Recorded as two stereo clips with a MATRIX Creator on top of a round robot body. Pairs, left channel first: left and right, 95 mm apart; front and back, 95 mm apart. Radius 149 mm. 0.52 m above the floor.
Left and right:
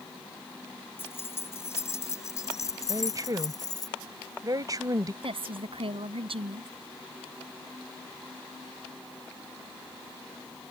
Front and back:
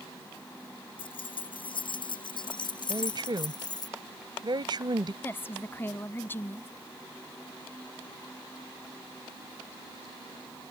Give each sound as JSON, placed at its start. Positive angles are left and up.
{"t": 1.0, "sound": "keys jangling", "azimuth_deg": 25}
{"t": 2.9, "sound": "a woman speaking", "azimuth_deg": -140}
{"t": 5.2, "sound": "a woman speaking", "azimuth_deg": -70}